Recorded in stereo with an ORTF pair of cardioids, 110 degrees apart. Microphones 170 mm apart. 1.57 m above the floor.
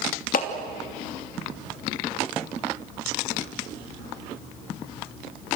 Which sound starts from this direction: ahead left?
A clap, at 0.3 s.